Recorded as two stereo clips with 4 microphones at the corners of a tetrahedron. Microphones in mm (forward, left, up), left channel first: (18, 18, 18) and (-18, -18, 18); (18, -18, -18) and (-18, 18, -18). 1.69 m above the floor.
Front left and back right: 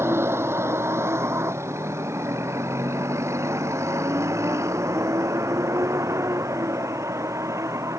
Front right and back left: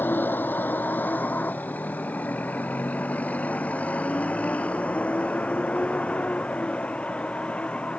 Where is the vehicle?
100° right; by 8.0 s 115° right.